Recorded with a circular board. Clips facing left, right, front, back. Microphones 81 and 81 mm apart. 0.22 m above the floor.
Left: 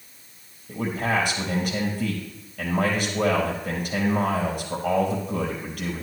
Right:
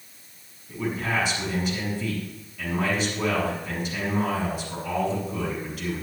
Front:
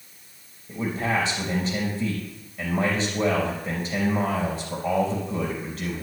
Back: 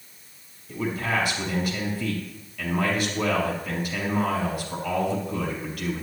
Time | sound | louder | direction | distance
0.7 | a man speaking | left 2 dB, front 1 dB | 55° left | 4 m